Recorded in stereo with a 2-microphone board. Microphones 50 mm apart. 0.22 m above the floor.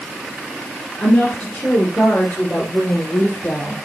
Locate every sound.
1.0 s a woman speaking: 15° left (ahead or behind), 3 m; by 3.8 s 25° left (ahead or behind), 4 m